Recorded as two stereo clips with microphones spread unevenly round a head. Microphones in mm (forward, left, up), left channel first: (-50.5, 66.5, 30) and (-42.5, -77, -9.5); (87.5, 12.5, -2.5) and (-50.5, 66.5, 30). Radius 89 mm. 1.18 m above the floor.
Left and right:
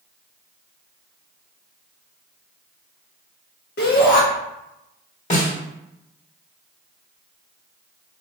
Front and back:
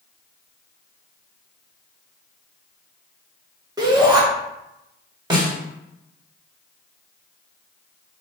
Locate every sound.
3.8 s a shout: 90° left, 1.1 m
5.3 s a snare drum: 105° left, 1.6 m